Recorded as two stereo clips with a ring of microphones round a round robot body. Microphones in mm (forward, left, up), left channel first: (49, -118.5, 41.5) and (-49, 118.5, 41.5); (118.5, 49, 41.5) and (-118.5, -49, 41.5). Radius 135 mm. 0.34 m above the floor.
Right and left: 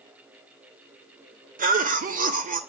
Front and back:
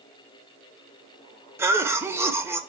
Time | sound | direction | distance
1.6 | a cough | 130° left | 1.0 m